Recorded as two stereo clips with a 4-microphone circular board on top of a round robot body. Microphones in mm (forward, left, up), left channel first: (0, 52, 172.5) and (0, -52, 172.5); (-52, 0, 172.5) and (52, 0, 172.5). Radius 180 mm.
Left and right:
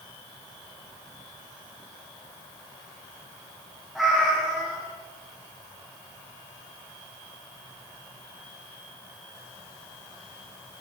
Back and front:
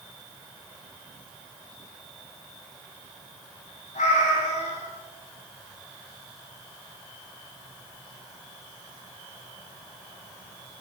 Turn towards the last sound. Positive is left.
turn(degrees=180)